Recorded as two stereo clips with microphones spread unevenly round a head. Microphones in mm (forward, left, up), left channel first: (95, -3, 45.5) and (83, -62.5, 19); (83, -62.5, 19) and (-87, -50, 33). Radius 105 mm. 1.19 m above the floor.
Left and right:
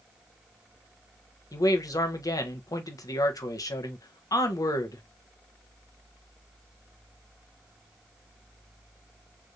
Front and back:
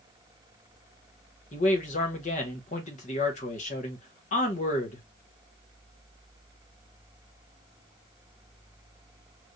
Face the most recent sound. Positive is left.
turn(degrees=45)